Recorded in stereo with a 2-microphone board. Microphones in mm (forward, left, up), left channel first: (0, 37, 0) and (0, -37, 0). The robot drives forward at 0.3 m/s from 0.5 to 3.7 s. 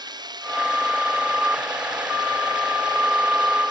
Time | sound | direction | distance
0.0 | running water | 70° right (ahead or behind) | ?